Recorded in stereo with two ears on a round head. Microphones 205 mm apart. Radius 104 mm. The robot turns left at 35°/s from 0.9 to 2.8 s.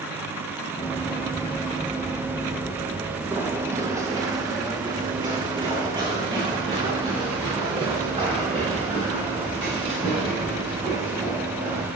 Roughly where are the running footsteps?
Centre.